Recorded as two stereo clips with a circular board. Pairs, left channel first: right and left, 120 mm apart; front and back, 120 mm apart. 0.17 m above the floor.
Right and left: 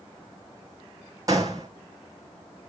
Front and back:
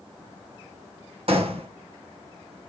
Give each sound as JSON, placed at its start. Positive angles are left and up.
{"t": 1.3, "sound": "a gunshot", "azimuth_deg": 150, "distance_m": 1.8}